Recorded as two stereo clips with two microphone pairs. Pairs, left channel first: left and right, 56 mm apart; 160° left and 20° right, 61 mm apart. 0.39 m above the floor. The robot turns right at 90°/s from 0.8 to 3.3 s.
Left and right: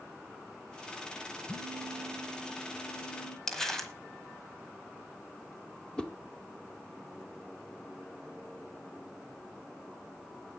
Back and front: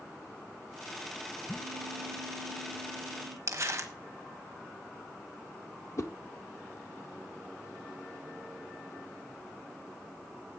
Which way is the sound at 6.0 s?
165° left.